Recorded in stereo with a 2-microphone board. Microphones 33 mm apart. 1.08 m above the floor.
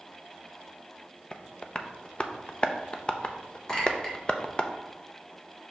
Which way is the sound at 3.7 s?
20° left (ahead or behind).